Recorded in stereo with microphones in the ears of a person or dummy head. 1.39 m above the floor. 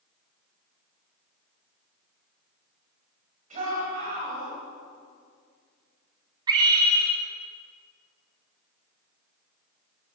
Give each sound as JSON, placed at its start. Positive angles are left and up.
{"t": 3.5, "sound": "a shout", "side_deg": -50, "distance_m": 9.0}
{"t": 6.5, "sound": "a scream", "side_deg": -15, "distance_m": 4.0}